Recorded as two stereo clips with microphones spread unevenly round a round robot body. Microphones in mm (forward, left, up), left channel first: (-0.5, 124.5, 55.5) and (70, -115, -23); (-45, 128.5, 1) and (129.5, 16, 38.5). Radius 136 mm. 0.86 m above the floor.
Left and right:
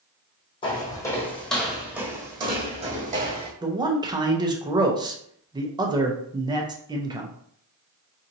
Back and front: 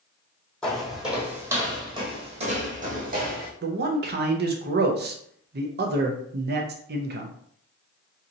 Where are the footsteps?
55° left, 1.5 m; by 3.5 s 10° right, 1.6 m.